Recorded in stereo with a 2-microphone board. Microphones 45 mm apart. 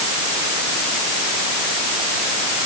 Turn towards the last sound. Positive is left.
No sound to turn to.